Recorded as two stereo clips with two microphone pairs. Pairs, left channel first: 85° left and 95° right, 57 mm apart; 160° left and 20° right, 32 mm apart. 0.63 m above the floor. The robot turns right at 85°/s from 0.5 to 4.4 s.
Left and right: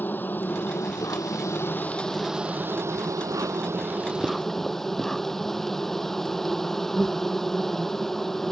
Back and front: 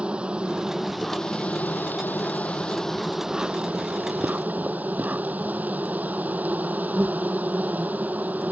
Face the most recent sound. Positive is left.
turn(degrees=0)